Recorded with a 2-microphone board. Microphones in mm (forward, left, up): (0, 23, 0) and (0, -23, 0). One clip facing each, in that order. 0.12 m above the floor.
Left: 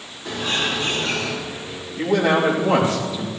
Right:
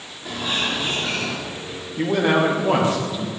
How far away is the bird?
About 6 m.